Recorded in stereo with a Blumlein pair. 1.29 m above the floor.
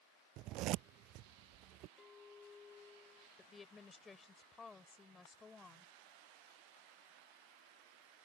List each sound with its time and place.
0.4 s a zipper: 40° right
2.0 s a clink: 20° left
3.4 s a woman speaking: 15° left